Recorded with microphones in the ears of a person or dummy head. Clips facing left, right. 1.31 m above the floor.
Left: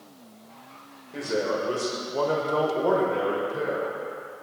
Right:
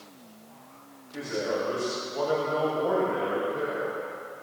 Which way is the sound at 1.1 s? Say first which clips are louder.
Left 3 dB; 50° left (ahead or behind).